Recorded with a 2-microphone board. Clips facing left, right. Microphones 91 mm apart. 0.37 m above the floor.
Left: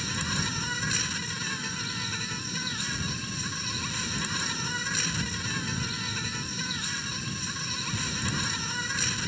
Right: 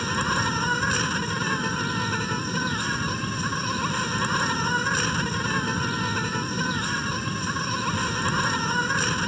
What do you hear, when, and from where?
0.0 s an insect: 55° right (ahead or behind)